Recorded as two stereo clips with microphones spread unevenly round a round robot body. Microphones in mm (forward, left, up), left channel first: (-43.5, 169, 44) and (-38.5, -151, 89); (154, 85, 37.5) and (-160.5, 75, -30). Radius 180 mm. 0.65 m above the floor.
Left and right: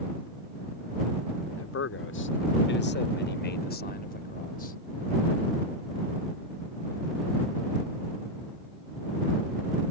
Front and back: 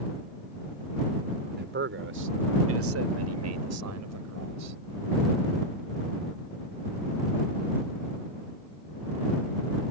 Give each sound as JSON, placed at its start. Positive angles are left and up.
{"t": 1.6, "sound": "a man speaking", "azimuth_deg": 130}